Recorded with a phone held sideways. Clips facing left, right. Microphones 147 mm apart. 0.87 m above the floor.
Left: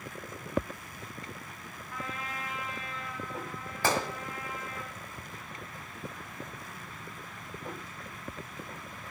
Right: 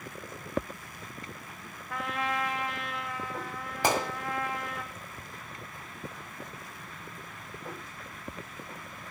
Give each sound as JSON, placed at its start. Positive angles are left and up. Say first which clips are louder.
{"t": 1.9, "sound": "a trumpet", "louder": "right 8 dB", "side_deg": -80, "distance_m": 1.2}
{"t": 3.8, "sound": "a gunshot", "louder": "right 2 dB", "side_deg": -15, "distance_m": 1.6}